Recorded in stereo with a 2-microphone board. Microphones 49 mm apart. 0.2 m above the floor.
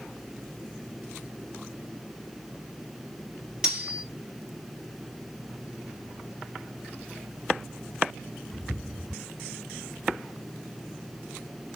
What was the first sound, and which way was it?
Cutlery clinking, 15° right (ahead or behind).